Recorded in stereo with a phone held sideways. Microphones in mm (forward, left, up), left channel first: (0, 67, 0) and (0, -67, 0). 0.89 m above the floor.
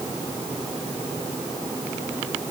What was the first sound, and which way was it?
Only background noise.